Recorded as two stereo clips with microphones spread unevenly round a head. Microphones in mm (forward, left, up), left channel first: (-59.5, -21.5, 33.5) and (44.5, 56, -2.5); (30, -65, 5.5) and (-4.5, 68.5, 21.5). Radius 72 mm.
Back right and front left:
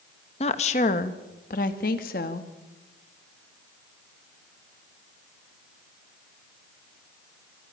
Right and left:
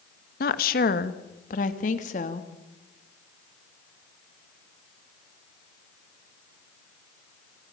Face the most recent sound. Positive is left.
turn(degrees=-115)